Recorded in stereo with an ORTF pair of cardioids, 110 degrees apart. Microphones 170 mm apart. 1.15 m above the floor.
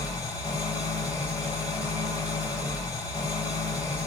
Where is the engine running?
20° left, 2 m.